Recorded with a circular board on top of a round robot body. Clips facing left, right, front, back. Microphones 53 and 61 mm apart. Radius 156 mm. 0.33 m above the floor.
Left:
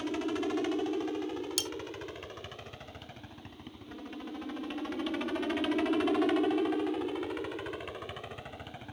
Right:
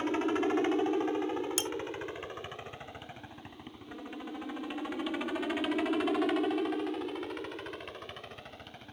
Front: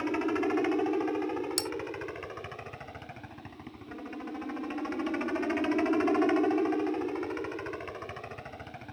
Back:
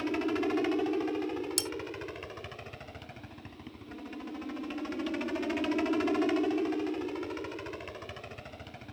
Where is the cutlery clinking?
30° right.